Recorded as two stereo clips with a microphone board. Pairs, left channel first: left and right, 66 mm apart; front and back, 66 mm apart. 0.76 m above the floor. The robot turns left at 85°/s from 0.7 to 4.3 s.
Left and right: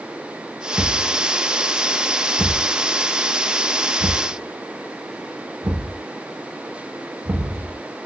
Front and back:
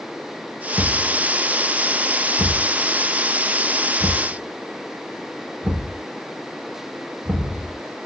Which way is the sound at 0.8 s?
Straight behind.